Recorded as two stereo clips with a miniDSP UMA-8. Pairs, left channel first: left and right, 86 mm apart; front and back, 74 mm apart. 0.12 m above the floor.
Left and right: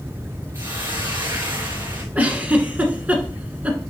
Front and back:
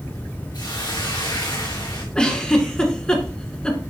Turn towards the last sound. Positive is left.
turn(degrees=-55)